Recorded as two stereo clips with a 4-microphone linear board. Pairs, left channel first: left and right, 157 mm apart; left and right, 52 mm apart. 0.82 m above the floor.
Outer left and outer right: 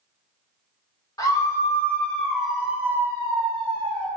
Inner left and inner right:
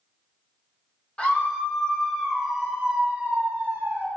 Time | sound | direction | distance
1.2 | a scream | 20° left (ahead or behind) | 2 m